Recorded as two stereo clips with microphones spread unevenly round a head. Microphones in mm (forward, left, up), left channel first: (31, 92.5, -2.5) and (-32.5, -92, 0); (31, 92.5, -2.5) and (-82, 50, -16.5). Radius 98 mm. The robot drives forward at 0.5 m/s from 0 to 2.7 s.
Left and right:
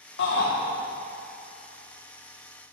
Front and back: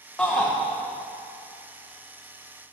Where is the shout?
100° left, 1.4 m; by 0.5 s 110° left, 1.4 m.